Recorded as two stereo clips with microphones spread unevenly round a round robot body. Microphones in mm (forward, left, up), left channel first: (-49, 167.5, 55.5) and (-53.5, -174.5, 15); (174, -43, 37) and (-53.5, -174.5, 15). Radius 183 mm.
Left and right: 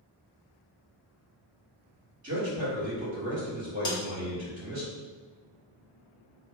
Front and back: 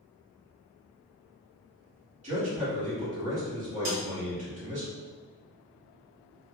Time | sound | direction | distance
2.2 | a man speaking | 120° right | 1.4 m
3.9 | a snare drum | 165° left | 0.5 m